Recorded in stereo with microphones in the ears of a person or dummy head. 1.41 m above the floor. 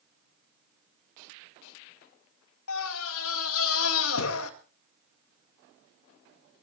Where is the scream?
80° left, 2.5 m.